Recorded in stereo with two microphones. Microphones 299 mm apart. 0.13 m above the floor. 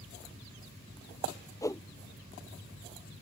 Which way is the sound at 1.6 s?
10° left (ahead or behind).